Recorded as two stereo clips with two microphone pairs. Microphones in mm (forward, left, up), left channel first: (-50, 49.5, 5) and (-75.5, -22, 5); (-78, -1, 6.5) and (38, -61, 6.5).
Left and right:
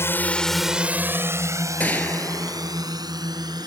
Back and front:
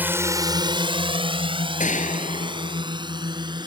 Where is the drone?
40° left; by 3.7 s 80° right.